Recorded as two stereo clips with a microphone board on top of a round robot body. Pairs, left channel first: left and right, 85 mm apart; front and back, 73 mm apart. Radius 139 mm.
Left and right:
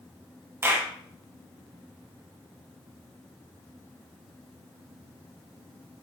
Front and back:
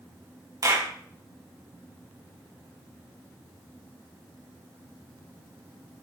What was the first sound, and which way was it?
A clap, 150° right.